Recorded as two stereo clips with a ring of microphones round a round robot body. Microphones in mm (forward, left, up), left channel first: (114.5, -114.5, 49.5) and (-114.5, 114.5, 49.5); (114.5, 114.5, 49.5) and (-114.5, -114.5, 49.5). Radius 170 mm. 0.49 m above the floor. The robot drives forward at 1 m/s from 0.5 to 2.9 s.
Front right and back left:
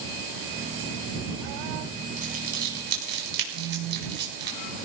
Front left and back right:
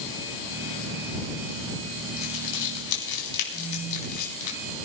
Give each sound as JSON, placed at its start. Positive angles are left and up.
{"t": 2.2, "sound": "crumpling", "azimuth_deg": 70, "distance_m": 4.5}
{"t": 3.5, "sound": "a phone buzzing", "azimuth_deg": -90, "distance_m": 8.5}